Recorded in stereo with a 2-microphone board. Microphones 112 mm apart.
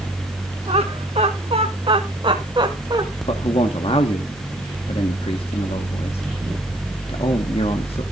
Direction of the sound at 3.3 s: 60° left (ahead or behind).